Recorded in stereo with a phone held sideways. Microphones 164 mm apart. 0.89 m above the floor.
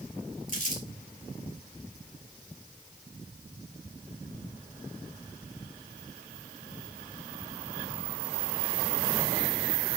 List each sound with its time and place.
0.5 s crumpling: 50° left (ahead or behind), 2.5 m